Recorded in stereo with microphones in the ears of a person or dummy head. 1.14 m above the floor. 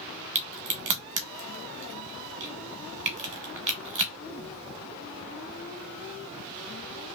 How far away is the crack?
About 0.8 m.